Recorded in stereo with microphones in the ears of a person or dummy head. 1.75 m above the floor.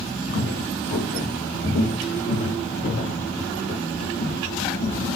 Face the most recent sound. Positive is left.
turn(degrees=30)  # may be behind; listen again after turning